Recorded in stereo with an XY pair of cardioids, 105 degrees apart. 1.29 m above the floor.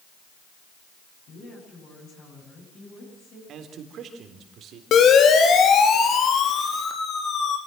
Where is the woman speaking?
65° left, 9.5 m.